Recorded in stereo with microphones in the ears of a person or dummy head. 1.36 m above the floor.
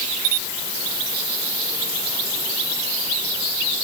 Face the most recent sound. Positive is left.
No sound to turn to.